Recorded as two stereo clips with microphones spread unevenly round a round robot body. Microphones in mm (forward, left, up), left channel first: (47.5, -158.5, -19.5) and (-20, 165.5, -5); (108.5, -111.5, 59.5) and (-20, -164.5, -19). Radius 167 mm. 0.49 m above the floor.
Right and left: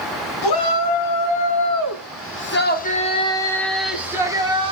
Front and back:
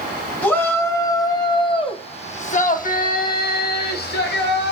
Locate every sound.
0.4 s a shout: 60° right, 5 m; by 4.7 s 30° left, 4.5 m